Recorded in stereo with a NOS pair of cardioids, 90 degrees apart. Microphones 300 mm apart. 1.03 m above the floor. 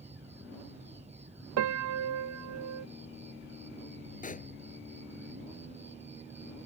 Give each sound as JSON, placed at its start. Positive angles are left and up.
{"t": 0.0, "sound": "an insect", "azimuth_deg": -20}
{"t": 1.6, "sound": "a piano", "azimuth_deg": -65}
{"t": 4.2, "sound": "a pop", "azimuth_deg": 25}